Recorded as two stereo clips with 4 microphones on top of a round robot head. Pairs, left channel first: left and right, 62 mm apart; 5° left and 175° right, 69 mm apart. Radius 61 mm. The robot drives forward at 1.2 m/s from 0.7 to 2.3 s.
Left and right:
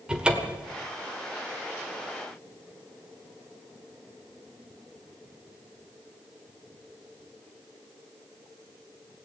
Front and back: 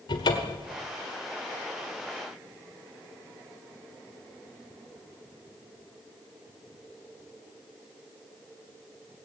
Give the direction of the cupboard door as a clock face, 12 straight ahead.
12 o'clock.